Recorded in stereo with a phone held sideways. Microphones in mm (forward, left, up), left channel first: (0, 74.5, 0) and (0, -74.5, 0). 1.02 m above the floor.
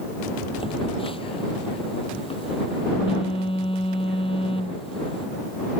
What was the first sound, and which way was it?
A phone buzzing, 35° left (ahead or behind).